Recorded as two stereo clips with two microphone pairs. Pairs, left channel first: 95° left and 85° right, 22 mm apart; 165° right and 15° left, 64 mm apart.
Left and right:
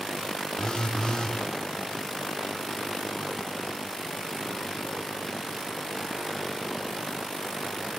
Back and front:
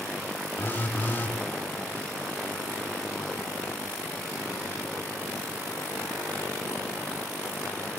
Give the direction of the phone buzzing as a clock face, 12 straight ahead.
7 o'clock.